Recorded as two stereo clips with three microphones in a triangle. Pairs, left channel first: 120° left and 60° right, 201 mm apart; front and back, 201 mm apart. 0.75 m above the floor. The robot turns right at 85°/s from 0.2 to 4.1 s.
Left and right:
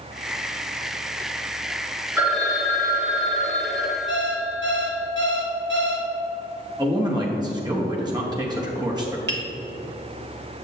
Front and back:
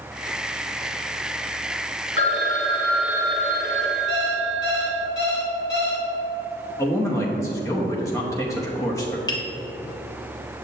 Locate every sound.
2.2 s a phone ringing: 15° left, 1.0 m; by 5.1 s straight behind, 1.0 m
4.1 s an alarm clock: 35° right, 1.0 m
6.8 s a man speaking: 45° right, 0.9 m
9.3 s tapping: 70° right, 1.1 m